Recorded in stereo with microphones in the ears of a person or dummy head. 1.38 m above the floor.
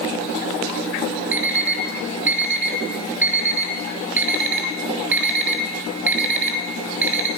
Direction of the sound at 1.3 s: 10° right (ahead or behind).